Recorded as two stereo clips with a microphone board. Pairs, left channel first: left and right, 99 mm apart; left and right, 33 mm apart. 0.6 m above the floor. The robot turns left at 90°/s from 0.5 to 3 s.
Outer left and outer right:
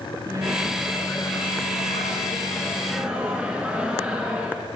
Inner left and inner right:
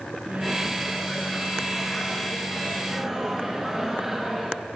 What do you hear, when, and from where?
0.3 s a microwave: 145° right, 5 m; by 4.7 s 10° right, 5 m